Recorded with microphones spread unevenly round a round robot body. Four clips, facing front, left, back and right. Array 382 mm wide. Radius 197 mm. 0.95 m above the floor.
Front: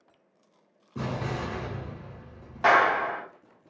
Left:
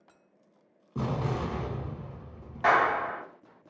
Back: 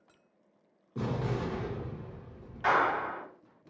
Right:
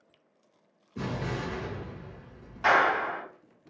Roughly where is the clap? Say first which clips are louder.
Even, front 6 dB; ahead.